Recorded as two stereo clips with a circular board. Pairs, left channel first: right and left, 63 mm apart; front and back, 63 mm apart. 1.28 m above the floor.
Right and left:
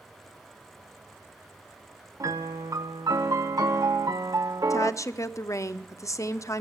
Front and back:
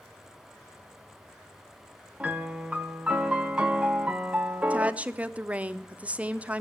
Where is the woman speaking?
115° right, 0.7 m.